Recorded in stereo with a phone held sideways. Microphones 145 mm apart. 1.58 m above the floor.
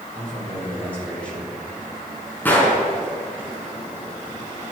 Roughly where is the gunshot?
Centre.